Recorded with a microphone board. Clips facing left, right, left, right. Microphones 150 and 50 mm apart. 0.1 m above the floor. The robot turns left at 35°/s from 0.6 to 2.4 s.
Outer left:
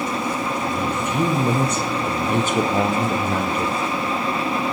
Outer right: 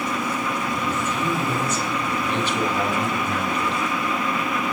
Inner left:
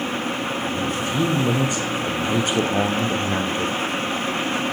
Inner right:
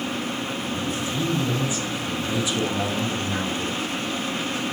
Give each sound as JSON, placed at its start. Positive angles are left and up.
{"t": 0.8, "sound": "a man speaking", "azimuth_deg": 110, "distance_m": 2.5}